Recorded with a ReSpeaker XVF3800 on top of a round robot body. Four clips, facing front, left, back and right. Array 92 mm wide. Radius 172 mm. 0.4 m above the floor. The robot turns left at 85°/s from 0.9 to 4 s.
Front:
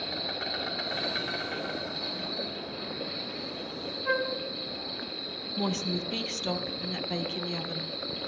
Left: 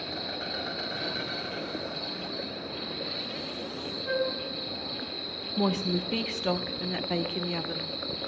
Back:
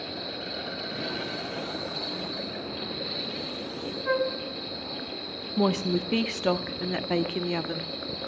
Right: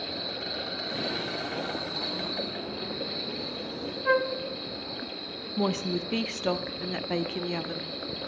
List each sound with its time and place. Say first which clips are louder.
0.0 s an insect: even, even; 25° left, 7.5 m; by 8.3 s 120° left, 7.5 m
4.0 s a flute: right 5 dB, back 3 dB; 90° right, 1.7 m
5.6 s a woman speaking: left 1 dB, back 7 dB; 170° right, 1.1 m